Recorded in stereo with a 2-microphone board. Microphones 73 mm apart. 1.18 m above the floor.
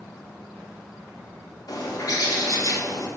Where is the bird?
55° left (ahead or behind), 3.5 m.